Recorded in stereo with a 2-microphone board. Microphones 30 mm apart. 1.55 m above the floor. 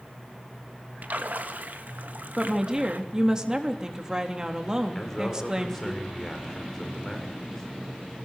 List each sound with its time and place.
1.0 s a splash: 70° right (ahead or behind), 2 m
2.4 s a woman speaking: 25° right (ahead or behind), 3.5 m
5.0 s a man speaking: 15° left (ahead or behind), 6.5 m